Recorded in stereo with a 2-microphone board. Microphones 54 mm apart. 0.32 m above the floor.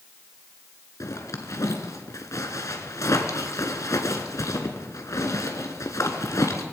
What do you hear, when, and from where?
1.0 s a zipper: 80° left, 1.6 m